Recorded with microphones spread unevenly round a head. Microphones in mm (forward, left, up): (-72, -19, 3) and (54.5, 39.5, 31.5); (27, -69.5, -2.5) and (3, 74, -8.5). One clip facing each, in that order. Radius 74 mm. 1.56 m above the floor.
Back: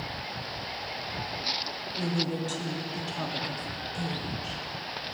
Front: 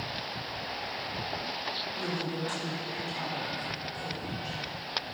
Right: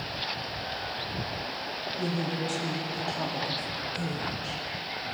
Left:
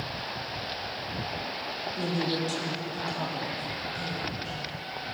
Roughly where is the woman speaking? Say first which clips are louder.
Back 5 dB, left 2 dB; behind left.